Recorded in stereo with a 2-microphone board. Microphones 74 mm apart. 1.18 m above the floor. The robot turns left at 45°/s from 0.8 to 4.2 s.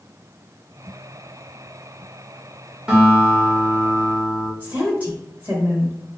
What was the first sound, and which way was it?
A guitar, 170° right.